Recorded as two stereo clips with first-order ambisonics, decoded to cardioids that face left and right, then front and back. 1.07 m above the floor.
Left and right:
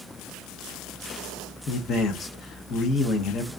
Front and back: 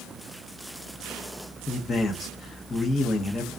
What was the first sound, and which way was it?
A man speaking, 60° left.